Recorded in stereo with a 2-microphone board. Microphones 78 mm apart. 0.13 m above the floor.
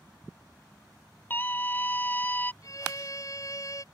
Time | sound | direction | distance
1.3 | a scream | 25° left (ahead or behind) | ?
2.6 | a violin | 45° left (ahead or behind) | ?